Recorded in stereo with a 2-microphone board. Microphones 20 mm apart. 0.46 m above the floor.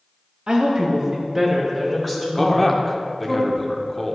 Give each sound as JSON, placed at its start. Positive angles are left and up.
{"t": 0.5, "sound": "a woman speaking", "side_deg": -40, "distance_m": 1.1}
{"t": 2.4, "sound": "a man speaking", "side_deg": 5, "distance_m": 0.7}